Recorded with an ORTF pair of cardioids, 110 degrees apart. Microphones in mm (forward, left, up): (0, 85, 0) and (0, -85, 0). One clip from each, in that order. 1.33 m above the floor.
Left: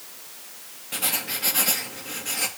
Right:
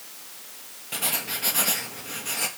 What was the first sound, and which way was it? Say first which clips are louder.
Writing: left 1 dB; 5° right.